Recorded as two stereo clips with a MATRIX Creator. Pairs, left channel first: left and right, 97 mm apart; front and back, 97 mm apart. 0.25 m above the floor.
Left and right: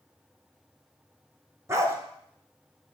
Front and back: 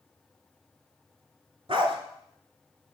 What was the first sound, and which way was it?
A dog barking, 150° right.